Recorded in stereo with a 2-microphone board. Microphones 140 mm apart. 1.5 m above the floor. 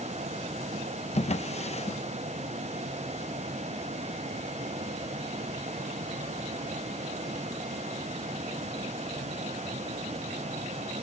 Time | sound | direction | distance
1.1 | a drawer | 50° left (ahead or behind) | ?